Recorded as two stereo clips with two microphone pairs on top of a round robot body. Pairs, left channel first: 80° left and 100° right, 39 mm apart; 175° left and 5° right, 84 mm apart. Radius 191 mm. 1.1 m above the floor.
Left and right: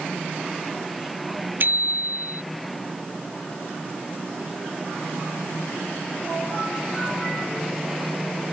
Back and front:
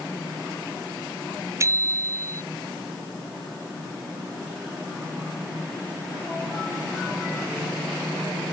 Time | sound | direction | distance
1.6 | a bicycle bell | 60° right | ?